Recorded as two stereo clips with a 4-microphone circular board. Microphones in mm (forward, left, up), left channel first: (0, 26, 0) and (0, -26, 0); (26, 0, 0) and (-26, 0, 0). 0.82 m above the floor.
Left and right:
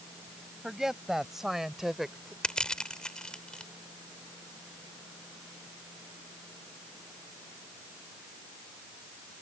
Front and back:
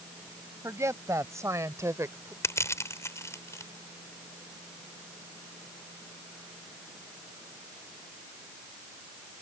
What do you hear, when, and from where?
0.6 s a woman speaking: 175° right
2.4 s crushing: 15° left